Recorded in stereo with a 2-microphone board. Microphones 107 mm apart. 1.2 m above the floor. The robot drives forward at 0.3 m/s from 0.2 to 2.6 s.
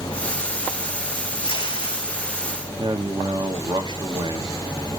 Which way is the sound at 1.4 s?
55° left (ahead or behind).